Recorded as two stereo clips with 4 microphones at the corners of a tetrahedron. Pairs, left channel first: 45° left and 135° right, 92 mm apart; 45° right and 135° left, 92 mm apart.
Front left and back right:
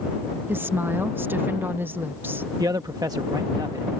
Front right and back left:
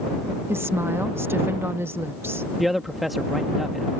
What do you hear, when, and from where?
0.5 s a woman speaking: 175° left
2.6 s a man speaking: 135° right